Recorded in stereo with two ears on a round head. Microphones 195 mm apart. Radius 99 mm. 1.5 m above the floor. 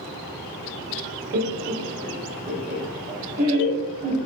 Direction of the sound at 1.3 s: 45° right (ahead or behind).